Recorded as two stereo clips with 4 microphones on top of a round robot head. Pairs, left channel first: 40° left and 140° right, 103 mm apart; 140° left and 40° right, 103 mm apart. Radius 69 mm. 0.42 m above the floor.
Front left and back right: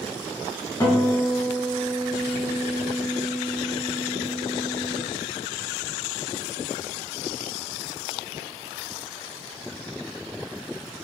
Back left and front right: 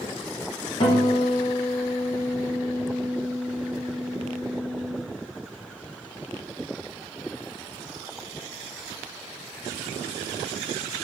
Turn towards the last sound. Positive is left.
turn(degrees=100)